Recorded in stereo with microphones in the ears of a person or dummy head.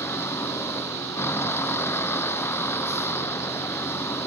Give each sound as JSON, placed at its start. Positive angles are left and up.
{"t": 0.0, "sound": "a vehicle", "side_deg": 10}